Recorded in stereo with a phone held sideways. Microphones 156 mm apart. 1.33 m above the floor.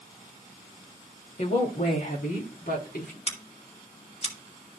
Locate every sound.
1.4 s a woman speaking: 50° left (ahead or behind), 3 m; by 3.2 s 80° left, 4.5 m
3.3 s scissors: 40° left (ahead or behind), 2.5 m